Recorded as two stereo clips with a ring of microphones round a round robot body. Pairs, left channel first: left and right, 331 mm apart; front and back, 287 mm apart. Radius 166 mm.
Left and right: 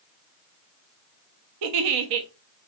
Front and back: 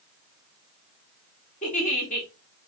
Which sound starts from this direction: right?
A giggle, at 1.6 s.